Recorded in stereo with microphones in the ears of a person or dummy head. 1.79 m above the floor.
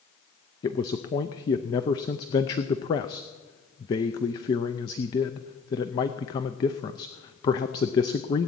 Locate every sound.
0.6 s a man speaking: 20° left (ahead or behind), 0.5 m